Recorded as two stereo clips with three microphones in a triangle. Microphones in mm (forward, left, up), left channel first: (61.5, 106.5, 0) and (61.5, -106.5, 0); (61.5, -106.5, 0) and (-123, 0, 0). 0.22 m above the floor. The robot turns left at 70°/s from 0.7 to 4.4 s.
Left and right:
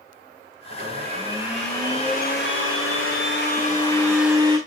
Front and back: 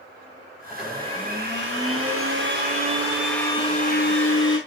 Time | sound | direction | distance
0.7 | a blender | 120° right | 4 m